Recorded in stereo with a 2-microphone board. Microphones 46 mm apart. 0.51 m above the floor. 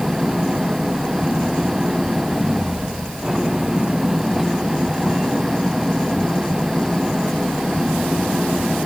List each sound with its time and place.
0.0 s an engine running: 10° right (ahead or behind)